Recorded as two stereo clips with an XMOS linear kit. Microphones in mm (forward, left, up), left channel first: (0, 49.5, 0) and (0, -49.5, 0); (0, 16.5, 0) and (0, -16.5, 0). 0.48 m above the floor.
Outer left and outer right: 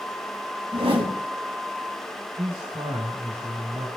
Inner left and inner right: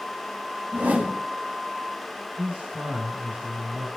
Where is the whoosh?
65° right (ahead or behind), 3.5 m.